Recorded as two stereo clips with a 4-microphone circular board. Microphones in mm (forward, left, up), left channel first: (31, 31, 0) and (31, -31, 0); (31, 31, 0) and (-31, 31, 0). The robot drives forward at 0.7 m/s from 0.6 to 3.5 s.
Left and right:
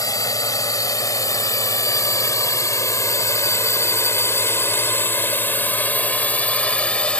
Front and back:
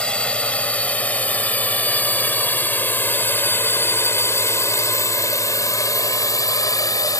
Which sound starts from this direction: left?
A drone, at 0.0 s.